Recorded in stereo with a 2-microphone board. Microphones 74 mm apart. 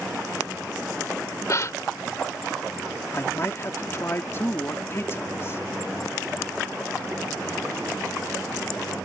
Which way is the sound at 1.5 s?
45° left (ahead or behind).